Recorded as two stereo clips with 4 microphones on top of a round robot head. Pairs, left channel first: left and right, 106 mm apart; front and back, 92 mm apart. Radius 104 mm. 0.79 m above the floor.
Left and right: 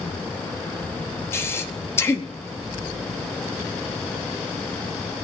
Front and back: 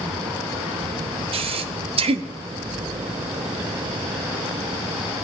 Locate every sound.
1.3 s breathing: 160° left, 1.0 m